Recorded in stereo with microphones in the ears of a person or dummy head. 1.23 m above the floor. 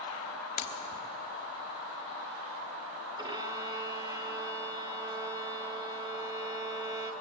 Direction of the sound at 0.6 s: 40° left (ahead or behind).